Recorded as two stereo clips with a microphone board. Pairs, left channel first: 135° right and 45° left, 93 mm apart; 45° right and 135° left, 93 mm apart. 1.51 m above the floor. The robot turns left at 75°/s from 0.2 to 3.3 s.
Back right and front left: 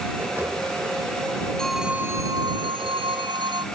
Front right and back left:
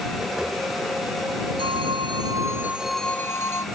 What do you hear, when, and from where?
1.6 s a phone ringing: 145° left; by 3.6 s 15° left